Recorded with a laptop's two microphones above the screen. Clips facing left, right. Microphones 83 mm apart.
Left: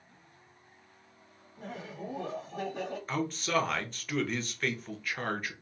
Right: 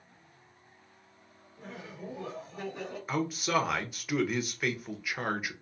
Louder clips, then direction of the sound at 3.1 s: Right 2 dB; 10° right (ahead or behind).